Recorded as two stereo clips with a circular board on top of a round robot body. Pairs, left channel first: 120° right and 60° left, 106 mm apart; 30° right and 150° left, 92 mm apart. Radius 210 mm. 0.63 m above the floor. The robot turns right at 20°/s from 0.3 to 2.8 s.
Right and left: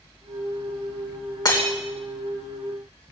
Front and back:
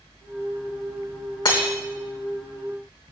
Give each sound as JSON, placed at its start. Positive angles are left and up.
{"t": 1.4, "sound": "breaking glass", "azimuth_deg": -70, "distance_m": 3.0}